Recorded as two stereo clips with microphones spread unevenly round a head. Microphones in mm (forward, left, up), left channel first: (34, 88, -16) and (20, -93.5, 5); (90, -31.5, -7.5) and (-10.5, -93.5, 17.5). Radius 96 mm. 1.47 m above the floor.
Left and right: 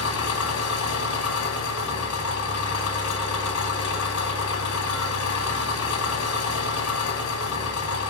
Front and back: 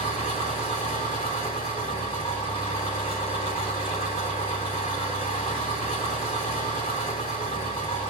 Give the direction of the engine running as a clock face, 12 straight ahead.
9 o'clock.